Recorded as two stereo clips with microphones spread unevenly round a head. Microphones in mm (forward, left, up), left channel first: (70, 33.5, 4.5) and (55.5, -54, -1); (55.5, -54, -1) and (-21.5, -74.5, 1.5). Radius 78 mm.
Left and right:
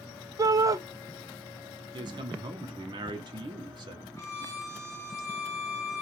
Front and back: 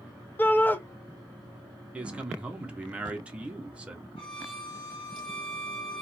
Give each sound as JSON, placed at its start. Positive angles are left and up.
{"t": 0.4, "sound": "a shout", "azimuth_deg": -50, "distance_m": 0.7}
{"t": 1.9, "sound": "a man speaking", "azimuth_deg": -95, "distance_m": 0.8}
{"t": 4.2, "sound": "a violin", "azimuth_deg": 20, "distance_m": 1.2}